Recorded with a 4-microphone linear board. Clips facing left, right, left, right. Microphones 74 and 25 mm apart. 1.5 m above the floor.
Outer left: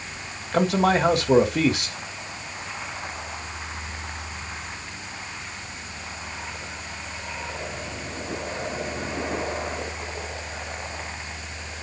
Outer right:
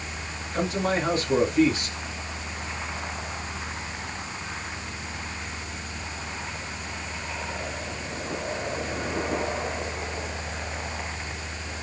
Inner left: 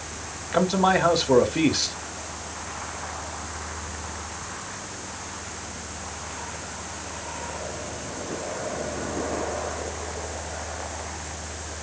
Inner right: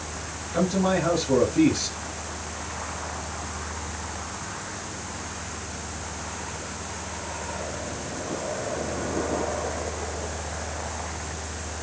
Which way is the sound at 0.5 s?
70° left (ahead or behind).